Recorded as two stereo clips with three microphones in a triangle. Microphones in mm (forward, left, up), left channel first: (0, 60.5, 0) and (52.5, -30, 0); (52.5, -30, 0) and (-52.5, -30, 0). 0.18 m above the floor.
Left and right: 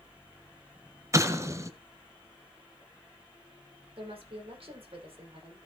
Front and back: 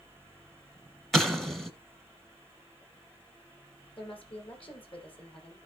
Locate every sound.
1.1 s an explosion: 85° right, 1.4 m
4.0 s a woman speaking: 30° right, 7 m